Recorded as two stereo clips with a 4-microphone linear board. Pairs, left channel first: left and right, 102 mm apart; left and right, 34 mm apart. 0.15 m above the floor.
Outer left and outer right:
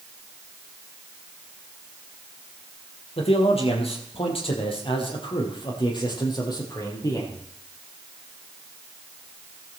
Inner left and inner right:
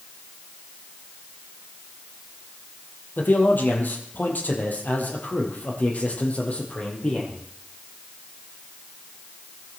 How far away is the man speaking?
About 4.5 m.